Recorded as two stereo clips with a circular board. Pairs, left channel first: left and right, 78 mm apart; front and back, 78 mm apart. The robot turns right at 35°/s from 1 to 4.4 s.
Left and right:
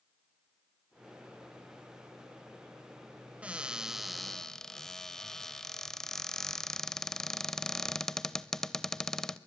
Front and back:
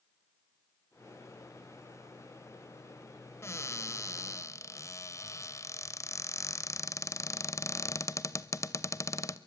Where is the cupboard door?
25° right, 0.8 m; by 9.4 s 10° left, 0.8 m.